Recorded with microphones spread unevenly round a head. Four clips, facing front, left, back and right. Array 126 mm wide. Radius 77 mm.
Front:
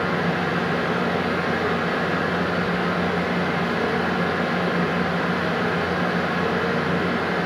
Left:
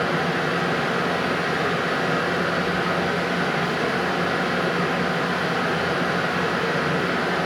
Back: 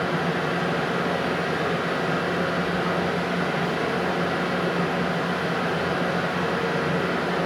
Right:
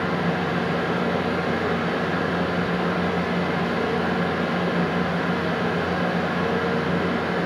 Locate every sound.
0.0 s a fan: 75° left, 1.0 m